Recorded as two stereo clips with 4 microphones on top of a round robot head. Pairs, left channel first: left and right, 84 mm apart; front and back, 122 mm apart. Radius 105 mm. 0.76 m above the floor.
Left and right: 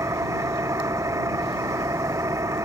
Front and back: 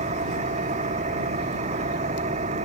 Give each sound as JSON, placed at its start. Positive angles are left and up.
{"t": 0.0, "sound": "an engine running", "azimuth_deg": -145}